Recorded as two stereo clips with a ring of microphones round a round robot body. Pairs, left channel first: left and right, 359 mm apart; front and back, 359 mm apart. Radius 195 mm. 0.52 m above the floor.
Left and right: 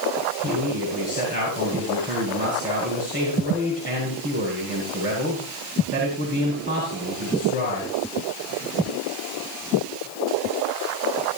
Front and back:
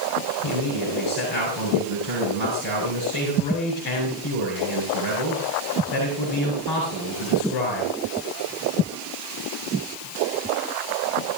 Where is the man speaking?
20° left, 8 m.